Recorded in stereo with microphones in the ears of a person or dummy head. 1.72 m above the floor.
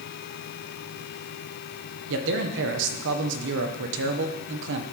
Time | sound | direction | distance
2.1 | a man speaking | 65° right (ahead or behind) | 1.6 m